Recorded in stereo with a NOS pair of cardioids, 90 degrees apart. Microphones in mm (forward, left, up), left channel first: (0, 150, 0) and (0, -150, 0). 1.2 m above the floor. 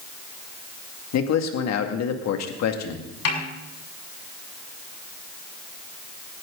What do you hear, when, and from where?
1.1 s a man speaking: 70° left, 2 m
3.2 s a snare drum: 60° left, 6.5 m